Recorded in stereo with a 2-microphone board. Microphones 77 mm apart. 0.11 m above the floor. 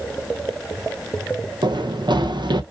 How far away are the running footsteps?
About 0.8 m.